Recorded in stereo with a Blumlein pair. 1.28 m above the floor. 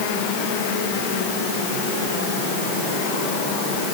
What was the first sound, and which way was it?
Only background noise.